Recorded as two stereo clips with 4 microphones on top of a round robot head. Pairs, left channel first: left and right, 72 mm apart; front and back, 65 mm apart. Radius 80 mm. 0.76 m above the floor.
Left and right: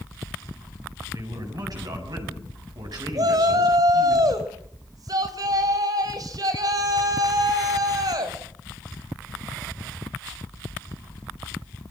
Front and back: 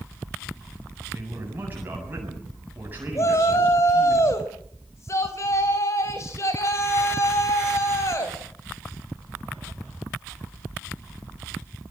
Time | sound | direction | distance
1.1 | a man speaking | 115° right | 7.5 m
3.1 | a shout | 50° right | 3.5 m